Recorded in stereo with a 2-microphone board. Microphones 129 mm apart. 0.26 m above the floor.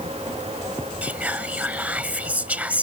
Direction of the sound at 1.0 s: 10° right (ahead or behind).